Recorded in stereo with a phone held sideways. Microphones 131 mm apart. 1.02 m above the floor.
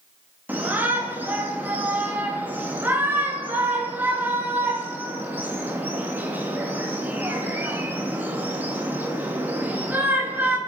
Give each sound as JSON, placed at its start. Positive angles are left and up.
{"t": 0.5, "sound": "a shout", "side_deg": -15, "distance_m": 1.4}